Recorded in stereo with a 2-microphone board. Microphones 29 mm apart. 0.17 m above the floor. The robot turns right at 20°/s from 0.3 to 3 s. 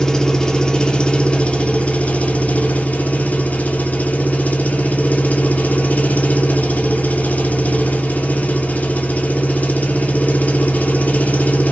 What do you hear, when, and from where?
0.0 s an engine running: 20° left, 0.9 m; by 11.7 s 75° left, 0.9 m